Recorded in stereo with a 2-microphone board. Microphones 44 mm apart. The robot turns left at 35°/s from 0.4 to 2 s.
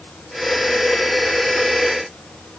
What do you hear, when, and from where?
Only background noise.